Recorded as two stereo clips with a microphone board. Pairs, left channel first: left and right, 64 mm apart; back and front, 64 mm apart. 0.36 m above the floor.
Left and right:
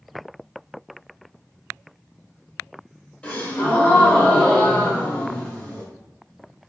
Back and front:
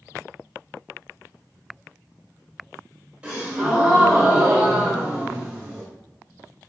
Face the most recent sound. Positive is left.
turn(degrees=50)